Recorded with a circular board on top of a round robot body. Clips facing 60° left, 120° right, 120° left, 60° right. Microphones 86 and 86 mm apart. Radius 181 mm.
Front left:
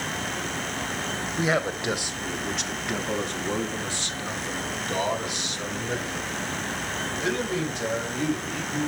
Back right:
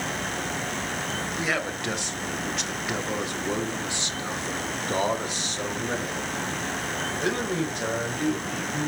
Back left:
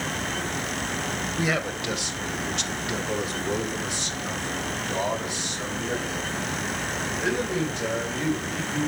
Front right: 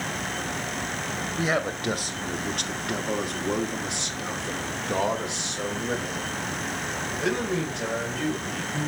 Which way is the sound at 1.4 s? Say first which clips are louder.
Front left 5 dB, front right 2 dB; 5° right.